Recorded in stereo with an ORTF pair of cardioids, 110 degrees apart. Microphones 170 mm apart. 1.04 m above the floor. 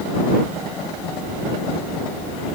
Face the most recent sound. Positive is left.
No sound to turn to.